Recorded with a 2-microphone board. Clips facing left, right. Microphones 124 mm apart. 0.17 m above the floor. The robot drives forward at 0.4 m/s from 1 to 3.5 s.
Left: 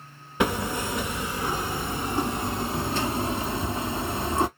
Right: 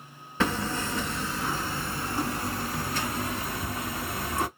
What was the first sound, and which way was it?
Hammering, 15° left (ahead or behind).